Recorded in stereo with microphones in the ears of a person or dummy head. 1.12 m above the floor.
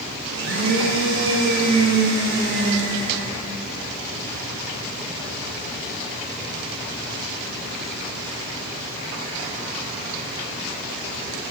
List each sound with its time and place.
0.3 s a blender: 60° right (ahead or behind), 1.3 m